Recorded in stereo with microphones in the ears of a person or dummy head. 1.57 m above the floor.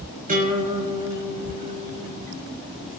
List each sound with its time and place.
0.3 s a guitar: 40° right (ahead or behind), 5.5 m